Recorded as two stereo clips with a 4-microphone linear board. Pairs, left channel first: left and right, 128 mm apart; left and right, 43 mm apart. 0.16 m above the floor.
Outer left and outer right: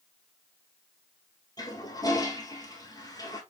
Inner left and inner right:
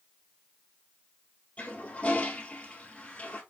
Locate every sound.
1.6 s a toilet flushing: 30° left (ahead or behind), 1.3 m